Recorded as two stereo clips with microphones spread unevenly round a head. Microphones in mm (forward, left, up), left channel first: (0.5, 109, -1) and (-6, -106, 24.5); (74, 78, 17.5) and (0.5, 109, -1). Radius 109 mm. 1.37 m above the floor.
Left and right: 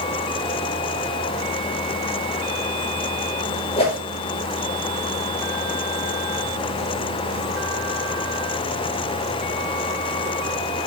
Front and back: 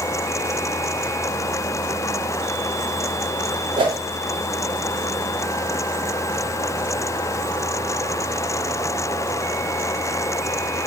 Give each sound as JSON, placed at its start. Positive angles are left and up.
{"t": 3.8, "sound": "a whoosh", "azimuth_deg": 155, "distance_m": 4.5}